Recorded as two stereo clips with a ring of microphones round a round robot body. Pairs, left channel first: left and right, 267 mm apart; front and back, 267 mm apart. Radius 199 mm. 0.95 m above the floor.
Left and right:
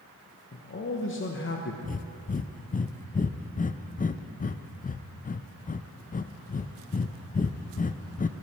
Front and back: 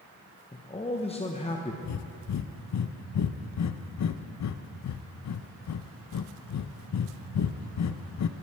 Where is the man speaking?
65° left, 1.0 m.